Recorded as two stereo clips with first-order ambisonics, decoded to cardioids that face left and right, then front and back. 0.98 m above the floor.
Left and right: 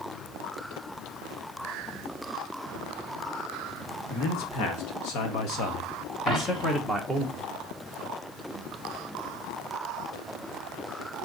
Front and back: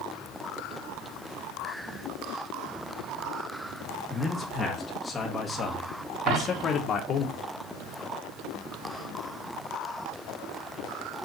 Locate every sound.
4.1 s a man speaking: 80° left, 2 m; by 7.3 s 10° right, 1.0 m
6.3 s a dropped coin: 165° left, 3.5 m